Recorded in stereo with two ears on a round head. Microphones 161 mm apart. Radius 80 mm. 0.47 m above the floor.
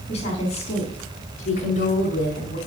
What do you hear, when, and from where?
0.1 s a woman speaking: 35° left (ahead or behind), 5 m; by 2.6 s 50° left (ahead or behind), 3.5 m